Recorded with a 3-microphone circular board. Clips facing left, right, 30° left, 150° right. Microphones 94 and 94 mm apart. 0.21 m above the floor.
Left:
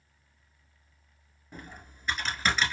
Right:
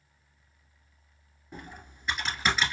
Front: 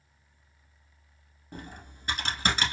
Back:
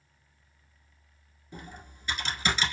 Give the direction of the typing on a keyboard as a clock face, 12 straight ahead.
12 o'clock.